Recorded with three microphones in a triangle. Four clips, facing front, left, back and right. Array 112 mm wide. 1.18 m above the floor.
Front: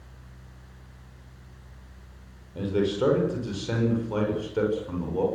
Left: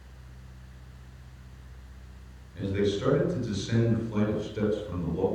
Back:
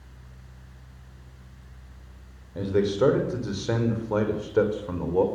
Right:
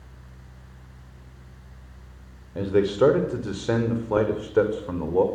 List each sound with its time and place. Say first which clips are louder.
2.5 s a man speaking: right 7 dB, back 2 dB; 105° right, 5.5 m; by 5.2 s 120° right, 5.5 m